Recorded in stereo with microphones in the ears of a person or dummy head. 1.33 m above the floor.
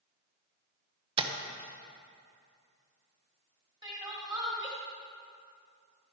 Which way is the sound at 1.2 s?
25° right (ahead or behind).